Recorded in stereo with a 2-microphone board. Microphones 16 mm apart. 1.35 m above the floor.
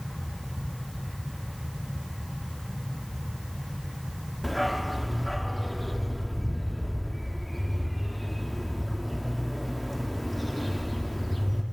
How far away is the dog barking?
About 1.0 m.